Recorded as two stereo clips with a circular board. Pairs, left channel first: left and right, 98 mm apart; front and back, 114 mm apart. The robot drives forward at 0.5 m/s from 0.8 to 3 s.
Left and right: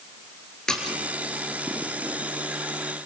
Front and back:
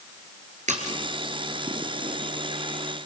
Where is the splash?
175° left, 2.5 m.